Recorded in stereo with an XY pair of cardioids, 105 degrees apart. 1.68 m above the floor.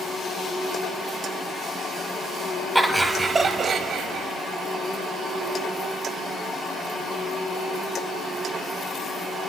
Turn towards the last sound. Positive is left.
turn(degrees=-80)